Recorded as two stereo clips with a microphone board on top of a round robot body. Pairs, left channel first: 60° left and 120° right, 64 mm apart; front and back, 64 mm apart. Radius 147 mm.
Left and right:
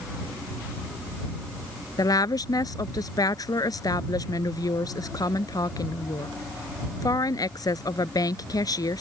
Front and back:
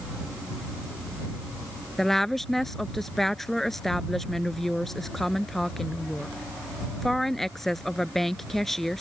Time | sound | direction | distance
2.0 | a woman speaking | 85° left | ?